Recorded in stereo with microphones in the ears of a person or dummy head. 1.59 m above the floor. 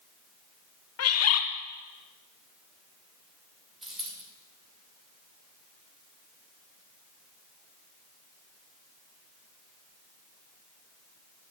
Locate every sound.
1.0 s a bird: 85° left, 0.9 m
3.8 s a dropped coin: centre (ahead or behind), 3 m